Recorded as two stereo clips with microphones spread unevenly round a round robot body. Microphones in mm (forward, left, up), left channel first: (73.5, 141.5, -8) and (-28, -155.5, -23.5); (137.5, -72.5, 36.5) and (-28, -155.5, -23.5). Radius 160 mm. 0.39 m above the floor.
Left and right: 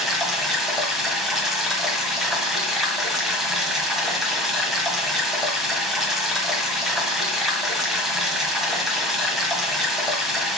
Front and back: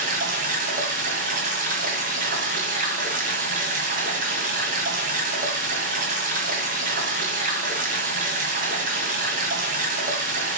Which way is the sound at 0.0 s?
160° left.